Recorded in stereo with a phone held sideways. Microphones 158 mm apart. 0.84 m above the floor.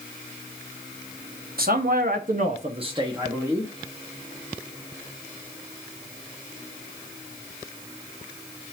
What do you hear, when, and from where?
1.6 s a man speaking: 70° right (ahead or behind), 0.9 m; by 3.7 s 10° right (ahead or behind), 1.2 m